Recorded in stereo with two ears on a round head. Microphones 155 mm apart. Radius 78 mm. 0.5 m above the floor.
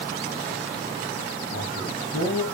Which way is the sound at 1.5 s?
60° left (ahead or behind).